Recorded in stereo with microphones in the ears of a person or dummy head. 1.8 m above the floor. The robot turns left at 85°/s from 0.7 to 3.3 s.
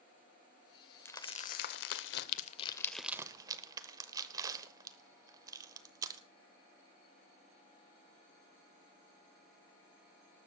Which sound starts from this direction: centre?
Crumpling, at 1.1 s.